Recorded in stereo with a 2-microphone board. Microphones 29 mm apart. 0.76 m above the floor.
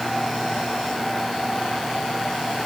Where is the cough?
No cough in this recording.